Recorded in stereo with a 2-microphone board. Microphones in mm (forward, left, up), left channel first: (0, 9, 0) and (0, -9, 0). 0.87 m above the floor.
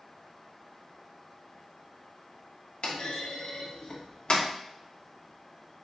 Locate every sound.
2.8 s a clunk: 65° left (ahead or behind), 1.1 m